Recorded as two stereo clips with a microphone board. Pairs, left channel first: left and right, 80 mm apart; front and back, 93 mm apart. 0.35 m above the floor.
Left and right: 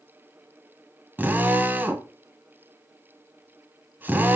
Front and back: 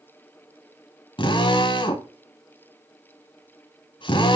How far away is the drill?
About 1.3 m.